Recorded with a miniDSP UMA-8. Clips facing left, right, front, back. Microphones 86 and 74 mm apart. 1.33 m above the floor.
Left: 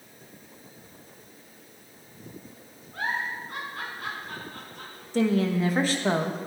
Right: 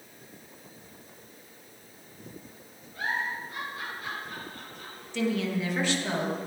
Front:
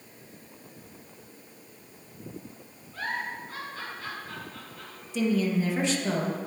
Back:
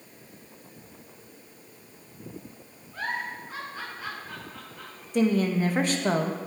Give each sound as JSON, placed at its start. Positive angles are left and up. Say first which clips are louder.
{"t": 2.9, "sound": "a giggle", "louder": "left 1 dB, back 1 dB", "azimuth_deg": 115, "distance_m": 4.0}
{"t": 5.1, "sound": "a woman speaking", "louder": "left 5 dB, back 2 dB", "azimuth_deg": 140, "distance_m": 1.3}